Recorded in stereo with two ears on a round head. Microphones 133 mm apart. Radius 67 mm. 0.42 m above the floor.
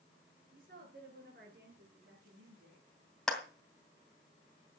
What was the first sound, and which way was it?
A woman speaking, 60° right (ahead or behind).